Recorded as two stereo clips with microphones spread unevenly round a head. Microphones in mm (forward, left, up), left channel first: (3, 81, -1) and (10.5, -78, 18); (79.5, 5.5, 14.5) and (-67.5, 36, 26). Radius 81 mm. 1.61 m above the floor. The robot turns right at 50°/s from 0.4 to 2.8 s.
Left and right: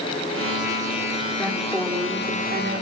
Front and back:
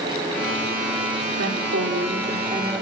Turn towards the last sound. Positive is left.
turn(degrees=-120)